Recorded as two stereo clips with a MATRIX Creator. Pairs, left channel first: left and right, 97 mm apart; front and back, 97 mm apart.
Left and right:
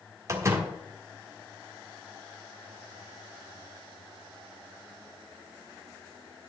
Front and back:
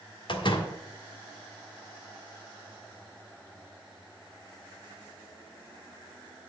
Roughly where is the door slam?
Ahead right.